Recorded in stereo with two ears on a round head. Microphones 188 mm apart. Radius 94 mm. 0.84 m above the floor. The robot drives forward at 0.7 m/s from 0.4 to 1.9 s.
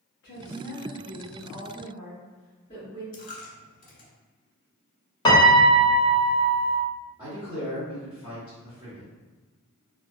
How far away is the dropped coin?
About 1.1 m.